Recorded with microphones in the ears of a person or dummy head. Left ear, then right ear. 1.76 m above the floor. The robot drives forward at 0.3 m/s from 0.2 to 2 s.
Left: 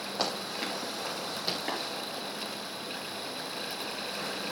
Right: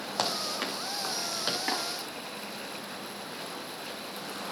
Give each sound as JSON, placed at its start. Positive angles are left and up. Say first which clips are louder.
{"t": 0.2, "sound": "running footsteps", "louder": "right 3 dB", "side_deg": -60, "distance_m": 6.0}
{"t": 1.7, "sound": "tapping", "louder": "right 5 dB", "side_deg": -20, "distance_m": 4.5}